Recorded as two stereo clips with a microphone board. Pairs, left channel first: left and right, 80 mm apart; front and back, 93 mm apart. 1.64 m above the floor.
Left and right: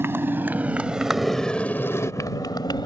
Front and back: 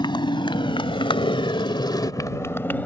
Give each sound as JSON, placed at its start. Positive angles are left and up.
{"t": 0.0, "sound": "a motorcycle", "azimuth_deg": -30}